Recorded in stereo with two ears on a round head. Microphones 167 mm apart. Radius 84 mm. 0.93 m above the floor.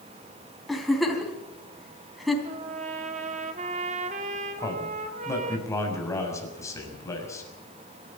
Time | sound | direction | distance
0.7 | a giggle | centre (ahead or behind) | 3.5 m
2.5 | a trumpet | 40° right (ahead or behind) | 2 m
4.6 | a man speaking | 15° left (ahead or behind) | 6 m